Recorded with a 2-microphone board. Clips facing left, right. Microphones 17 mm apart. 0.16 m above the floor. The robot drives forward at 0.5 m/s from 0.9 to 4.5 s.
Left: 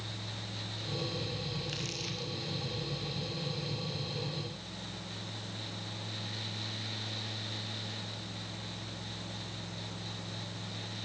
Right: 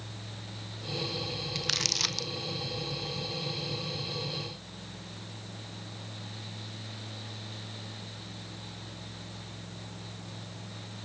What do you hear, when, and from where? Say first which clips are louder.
1.6 s crumpling: right 9 dB; 75° right (ahead or behind), 1.5 m; by 2.3 s 85° right, 1.5 m